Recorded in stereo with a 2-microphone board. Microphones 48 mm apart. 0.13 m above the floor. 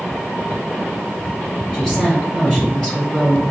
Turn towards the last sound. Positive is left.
turn(degrees=20)  # may be behind; listen again after turning